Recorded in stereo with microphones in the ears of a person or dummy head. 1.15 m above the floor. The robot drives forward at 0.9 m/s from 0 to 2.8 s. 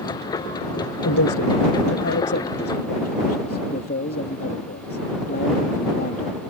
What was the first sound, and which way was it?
A man speaking, 70° left (ahead or behind).